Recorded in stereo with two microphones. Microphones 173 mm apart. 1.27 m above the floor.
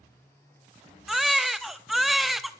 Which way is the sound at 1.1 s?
Centre (ahead or behind).